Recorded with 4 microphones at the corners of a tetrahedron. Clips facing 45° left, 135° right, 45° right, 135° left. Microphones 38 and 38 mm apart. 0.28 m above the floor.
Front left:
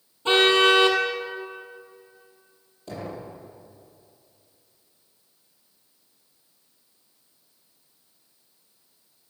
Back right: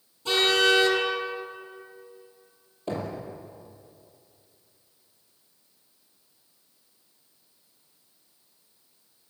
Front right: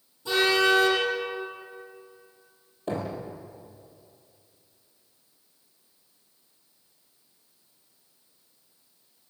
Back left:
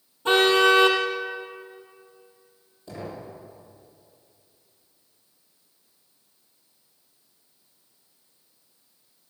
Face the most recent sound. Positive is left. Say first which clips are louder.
# back right 3 dB, front right 6 dB
turn(degrees=-80)